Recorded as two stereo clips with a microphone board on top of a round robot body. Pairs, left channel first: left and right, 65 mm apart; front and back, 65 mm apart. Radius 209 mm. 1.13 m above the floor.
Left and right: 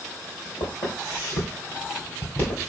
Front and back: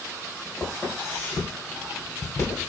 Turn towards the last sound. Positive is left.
turn(degrees=40)